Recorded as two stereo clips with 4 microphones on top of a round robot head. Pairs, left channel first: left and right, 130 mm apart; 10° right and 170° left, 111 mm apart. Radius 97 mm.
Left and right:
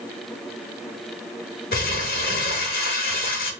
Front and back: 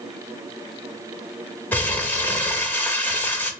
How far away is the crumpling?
About 0.6 m.